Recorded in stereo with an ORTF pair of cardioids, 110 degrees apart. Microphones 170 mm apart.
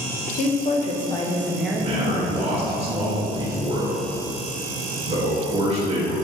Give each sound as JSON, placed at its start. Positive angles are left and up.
{"t": 0.3, "sound": "a woman speaking", "azimuth_deg": 60, "distance_m": 1.0}
{"t": 1.8, "sound": "a man speaking", "azimuth_deg": -40, "distance_m": 1.6}